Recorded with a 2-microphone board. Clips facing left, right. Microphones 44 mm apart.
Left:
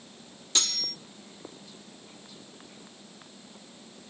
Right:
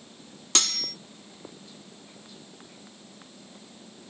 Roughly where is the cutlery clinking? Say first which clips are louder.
Right 2 dB; right.